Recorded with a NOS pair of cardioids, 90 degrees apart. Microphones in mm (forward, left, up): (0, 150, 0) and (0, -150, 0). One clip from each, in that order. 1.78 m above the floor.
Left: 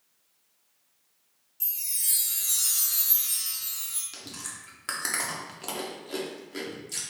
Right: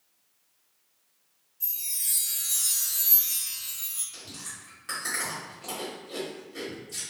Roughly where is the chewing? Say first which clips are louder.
Left 1 dB; ahead left.